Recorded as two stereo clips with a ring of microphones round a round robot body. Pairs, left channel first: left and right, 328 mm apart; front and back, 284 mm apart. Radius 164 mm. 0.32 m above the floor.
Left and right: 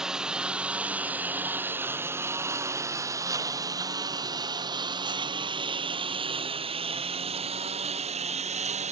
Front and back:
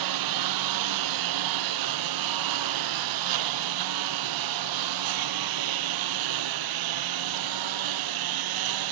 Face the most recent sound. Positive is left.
turn(degrees=-160)